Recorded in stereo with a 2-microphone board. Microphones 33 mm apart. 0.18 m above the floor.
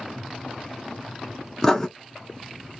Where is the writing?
15° left (ahead or behind), 0.7 m.